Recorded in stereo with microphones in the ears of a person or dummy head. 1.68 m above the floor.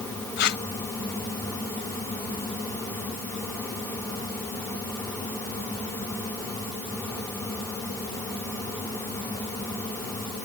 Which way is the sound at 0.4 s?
70° left (ahead or behind).